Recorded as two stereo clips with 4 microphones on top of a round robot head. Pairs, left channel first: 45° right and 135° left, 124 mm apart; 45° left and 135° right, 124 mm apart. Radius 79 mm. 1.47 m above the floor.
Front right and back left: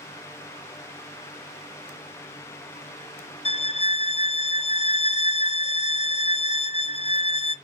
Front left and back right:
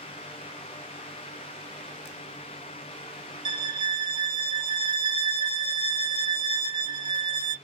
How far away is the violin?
About 0.5 m.